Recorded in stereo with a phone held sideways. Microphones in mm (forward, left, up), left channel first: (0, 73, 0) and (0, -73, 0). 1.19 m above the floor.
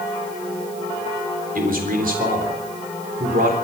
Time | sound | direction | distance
1.6 | a man speaking | 65° right (ahead or behind) | 3.5 m